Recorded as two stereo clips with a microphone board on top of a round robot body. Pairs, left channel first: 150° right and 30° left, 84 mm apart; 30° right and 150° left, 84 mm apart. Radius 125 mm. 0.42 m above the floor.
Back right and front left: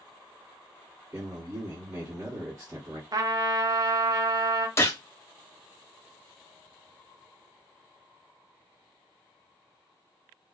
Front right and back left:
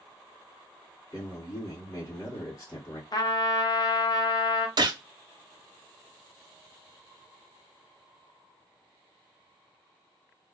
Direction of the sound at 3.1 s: 5° right.